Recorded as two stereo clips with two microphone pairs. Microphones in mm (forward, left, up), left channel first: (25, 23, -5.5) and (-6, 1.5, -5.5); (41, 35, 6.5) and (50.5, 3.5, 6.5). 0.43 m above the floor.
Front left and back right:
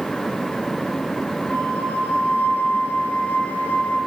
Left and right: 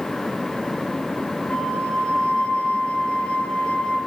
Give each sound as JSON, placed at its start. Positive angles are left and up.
{"t": 1.5, "sound": "a flute", "azimuth_deg": 60, "distance_m": 3.5}